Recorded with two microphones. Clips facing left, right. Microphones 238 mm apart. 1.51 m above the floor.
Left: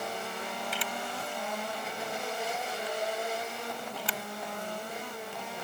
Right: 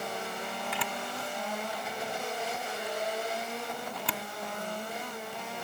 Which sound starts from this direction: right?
A camera shutter, at 0.7 s.